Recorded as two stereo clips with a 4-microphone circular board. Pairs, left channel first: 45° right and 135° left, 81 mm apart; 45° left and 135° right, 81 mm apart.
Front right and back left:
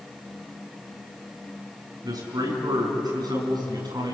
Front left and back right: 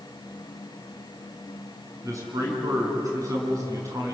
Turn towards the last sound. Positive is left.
turn(degrees=170)